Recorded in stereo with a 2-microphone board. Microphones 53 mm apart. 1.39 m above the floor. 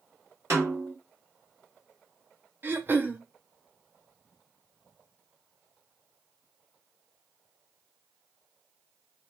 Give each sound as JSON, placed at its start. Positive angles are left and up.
{"t": 0.5, "sound": "a snare drum", "side_deg": -60, "distance_m": 1.5}
{"t": 2.6, "sound": "throat clearing", "side_deg": -40, "distance_m": 0.5}